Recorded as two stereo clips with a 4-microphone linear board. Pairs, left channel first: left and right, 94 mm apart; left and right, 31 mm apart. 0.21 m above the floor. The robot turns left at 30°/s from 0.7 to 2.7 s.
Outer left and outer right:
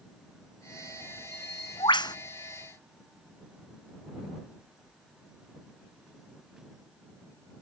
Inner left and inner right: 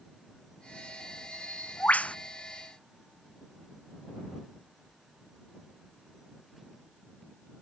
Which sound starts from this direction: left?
A bird, at 1.3 s.